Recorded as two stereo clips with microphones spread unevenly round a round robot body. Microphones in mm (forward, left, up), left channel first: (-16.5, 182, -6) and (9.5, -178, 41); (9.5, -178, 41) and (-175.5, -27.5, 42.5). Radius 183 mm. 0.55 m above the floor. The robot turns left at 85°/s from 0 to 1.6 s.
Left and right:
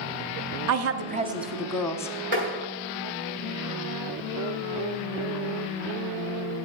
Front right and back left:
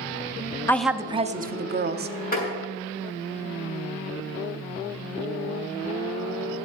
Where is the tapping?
90° right, 6 m.